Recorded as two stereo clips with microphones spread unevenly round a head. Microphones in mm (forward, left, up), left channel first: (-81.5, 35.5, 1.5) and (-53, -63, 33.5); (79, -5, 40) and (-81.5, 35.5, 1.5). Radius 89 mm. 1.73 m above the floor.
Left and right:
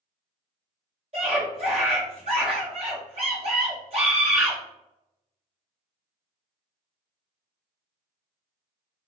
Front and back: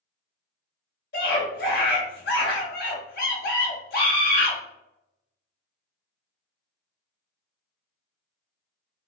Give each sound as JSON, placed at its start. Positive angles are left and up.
{"t": 1.1, "sound": "a scream", "azimuth_deg": -40, "distance_m": 1.6}